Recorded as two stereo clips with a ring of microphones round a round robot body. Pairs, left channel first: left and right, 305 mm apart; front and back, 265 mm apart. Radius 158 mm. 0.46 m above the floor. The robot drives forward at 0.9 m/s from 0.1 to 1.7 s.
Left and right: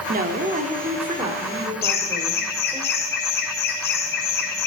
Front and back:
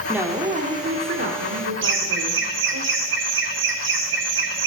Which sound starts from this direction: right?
A woman speaking, at 0.1 s.